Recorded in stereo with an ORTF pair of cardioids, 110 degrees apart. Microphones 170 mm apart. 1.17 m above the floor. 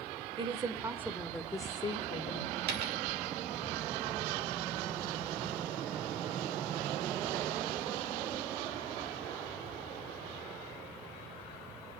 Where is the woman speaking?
35° right, 2.5 m; by 2.6 s 55° left, 2.5 m.